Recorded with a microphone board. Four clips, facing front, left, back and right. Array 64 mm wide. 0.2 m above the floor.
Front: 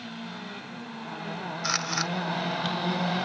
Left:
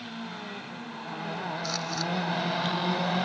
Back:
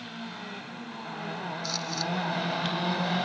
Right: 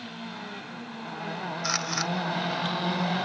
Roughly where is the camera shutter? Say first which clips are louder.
Right 2 dB, front 7 dB; ahead right.